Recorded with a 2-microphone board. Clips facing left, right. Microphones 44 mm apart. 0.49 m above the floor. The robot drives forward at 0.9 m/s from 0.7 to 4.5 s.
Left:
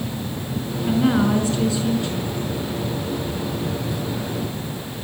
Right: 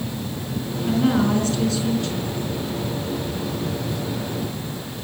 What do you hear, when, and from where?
0.9 s a woman speaking: 15° left (ahead or behind), 4.5 m